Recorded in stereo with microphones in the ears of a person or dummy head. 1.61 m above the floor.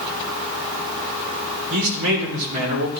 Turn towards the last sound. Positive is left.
turn(degrees=-60)  # may be behind; listen again after turning